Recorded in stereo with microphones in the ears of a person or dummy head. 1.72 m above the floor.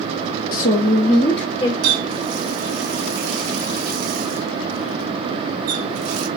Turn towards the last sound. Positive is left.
turn(degrees=-60)  # may be behind; listen again after turning